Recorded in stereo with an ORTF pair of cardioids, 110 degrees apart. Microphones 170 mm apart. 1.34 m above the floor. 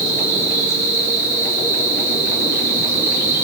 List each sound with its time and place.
0.0 s an insect: 20° right, 7 m